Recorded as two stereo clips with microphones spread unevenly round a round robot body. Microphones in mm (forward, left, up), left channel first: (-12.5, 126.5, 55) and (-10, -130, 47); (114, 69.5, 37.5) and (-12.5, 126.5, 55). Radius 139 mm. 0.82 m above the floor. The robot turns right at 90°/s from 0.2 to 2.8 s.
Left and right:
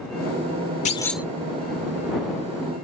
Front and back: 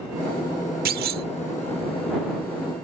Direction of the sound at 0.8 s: 155° left.